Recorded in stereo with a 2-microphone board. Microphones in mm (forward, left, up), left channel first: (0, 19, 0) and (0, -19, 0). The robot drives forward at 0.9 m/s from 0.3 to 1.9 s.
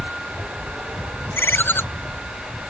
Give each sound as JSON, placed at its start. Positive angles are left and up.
{"t": 1.3, "sound": "a ringtone", "side_deg": 70}